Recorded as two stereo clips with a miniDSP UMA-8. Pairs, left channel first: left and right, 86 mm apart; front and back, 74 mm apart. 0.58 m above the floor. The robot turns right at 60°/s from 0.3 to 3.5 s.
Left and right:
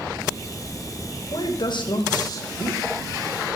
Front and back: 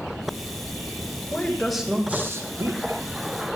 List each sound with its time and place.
1.3 s a woman speaking: 65° left, 2 m; by 3.0 s 170° left, 2 m